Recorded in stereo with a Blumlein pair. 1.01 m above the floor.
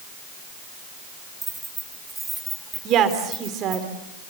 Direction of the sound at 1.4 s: 10° right.